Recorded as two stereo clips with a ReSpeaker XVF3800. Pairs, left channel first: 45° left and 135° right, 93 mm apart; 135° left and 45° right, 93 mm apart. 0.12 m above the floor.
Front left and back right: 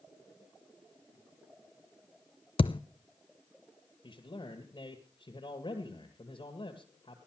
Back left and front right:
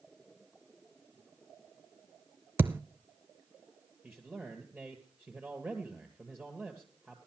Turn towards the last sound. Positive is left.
turn(degrees=35)